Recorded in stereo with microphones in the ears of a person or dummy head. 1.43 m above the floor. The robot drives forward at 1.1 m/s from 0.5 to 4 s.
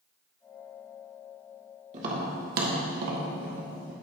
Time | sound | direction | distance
1.9 | tapping | 40° right (ahead or behind) | 1.9 m